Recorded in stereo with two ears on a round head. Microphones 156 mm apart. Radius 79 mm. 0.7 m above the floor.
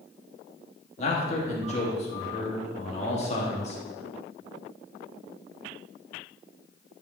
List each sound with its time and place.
1.0 s a man speaking: 40° left (ahead or behind), 1.3 m